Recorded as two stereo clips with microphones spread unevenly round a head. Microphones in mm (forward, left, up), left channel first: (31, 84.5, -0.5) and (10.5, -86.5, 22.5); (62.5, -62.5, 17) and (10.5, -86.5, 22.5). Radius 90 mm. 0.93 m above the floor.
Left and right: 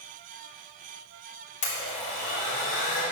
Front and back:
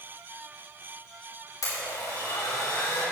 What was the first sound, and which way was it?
A blender, 40° left.